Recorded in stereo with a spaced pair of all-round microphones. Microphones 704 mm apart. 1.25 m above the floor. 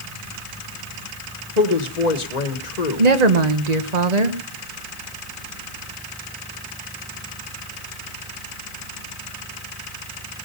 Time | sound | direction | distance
1.6 | a woman speaking | 70° left (ahead or behind) | 1.4 m
3.0 | a woman speaking | 70° right (ahead or behind) | 1.4 m